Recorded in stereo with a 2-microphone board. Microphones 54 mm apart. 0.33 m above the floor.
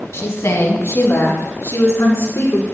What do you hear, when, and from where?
0.1 s a woman speaking: 55° left (ahead or behind), 1.9 m